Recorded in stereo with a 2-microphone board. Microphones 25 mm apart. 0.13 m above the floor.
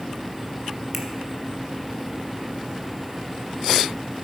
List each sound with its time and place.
0.9 s a finger snap: 5° left (ahead or behind), 1.2 m